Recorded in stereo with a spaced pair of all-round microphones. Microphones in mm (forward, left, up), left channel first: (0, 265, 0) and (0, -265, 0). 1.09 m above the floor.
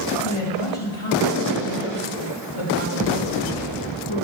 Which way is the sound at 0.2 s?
70° left (ahead or behind).